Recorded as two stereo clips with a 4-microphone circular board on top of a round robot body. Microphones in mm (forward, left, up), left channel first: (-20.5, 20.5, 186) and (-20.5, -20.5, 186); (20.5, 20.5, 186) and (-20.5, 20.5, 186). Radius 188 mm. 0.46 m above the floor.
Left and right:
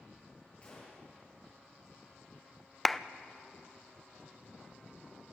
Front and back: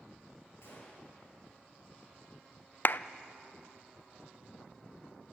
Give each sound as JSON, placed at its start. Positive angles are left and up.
{"t": 0.6, "sound": "a gunshot", "azimuth_deg": 25, "distance_m": 7.0}
{"t": 2.9, "sound": "a clap", "azimuth_deg": 5, "distance_m": 0.7}